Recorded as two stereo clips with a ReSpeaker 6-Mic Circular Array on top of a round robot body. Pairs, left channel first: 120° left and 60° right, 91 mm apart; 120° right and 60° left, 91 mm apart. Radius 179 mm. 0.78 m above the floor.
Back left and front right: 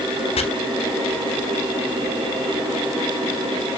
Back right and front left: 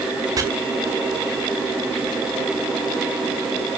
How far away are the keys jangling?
No keys jangling in this recording.